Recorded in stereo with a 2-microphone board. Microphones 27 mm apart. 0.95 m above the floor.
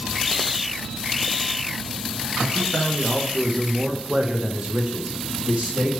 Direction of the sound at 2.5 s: 60° left (ahead or behind).